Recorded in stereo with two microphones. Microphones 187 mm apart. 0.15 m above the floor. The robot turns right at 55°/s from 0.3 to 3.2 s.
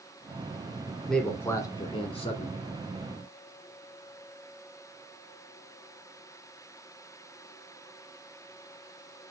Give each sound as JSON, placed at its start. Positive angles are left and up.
{"t": 1.1, "sound": "a man speaking", "azimuth_deg": 5, "distance_m": 1.3}